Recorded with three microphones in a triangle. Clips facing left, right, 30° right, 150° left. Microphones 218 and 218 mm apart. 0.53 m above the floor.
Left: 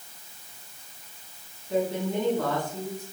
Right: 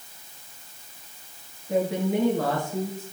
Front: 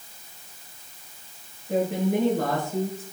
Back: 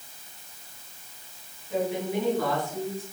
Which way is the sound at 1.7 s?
70° right.